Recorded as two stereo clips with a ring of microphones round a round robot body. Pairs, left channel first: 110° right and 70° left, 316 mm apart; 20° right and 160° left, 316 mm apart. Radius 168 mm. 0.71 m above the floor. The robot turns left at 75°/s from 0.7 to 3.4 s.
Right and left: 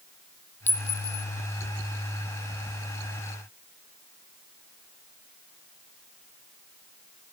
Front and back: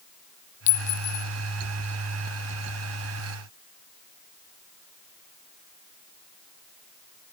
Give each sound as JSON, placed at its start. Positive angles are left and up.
{"t": 0.7, "sound": "a clink", "azimuth_deg": -30, "distance_m": 0.8}